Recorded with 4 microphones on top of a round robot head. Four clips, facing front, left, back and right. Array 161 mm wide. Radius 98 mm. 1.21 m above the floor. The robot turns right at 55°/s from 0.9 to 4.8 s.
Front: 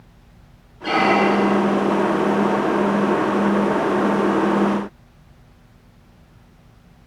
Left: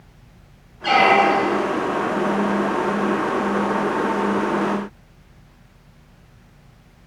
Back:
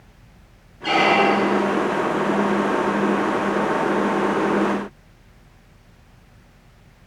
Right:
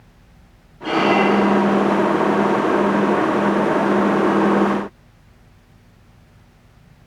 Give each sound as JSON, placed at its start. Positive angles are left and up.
{"t": 0.8, "sound": "a squeak", "azimuth_deg": 100, "distance_m": 1.0}